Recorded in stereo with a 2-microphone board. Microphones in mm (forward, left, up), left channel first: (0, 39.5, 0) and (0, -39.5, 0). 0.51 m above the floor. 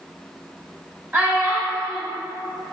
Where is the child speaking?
20° right (ahead or behind), 0.9 m.